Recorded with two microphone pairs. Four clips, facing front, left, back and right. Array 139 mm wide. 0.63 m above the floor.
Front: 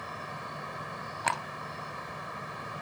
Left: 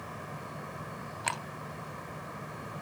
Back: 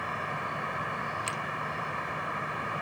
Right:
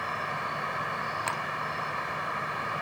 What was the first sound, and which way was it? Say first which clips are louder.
An insect: right 10 dB, back 6 dB; 110° right.